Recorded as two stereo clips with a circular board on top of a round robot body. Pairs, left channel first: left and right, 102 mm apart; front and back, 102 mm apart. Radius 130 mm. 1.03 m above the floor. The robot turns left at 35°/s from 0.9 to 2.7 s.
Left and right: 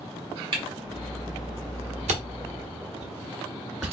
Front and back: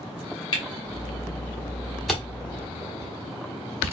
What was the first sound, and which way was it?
A camera shutter, 50° right.